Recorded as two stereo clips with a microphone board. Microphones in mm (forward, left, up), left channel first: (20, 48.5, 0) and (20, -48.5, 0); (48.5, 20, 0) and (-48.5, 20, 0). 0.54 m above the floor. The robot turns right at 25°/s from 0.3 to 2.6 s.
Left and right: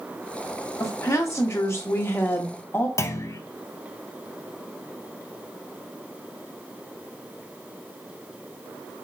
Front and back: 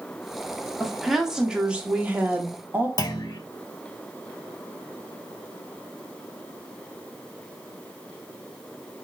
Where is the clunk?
40° left, 0.6 m.